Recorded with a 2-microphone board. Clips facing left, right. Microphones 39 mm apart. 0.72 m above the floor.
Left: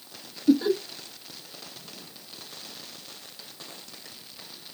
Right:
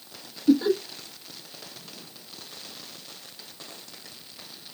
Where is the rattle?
I don't hear a rattle.